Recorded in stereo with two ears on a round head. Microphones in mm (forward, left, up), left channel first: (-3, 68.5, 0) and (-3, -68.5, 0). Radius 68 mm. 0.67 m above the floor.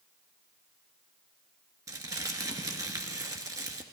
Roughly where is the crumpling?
Right.